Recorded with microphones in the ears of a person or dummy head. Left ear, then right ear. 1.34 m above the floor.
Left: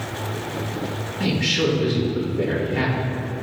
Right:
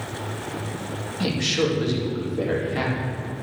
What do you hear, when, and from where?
1.2 s a man speaking: 80° right, 2 m